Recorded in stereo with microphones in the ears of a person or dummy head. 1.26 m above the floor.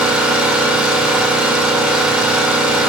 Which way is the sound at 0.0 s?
5° right (ahead or behind).